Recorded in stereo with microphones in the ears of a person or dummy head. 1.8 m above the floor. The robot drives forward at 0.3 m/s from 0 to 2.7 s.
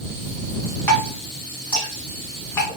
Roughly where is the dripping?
Centre.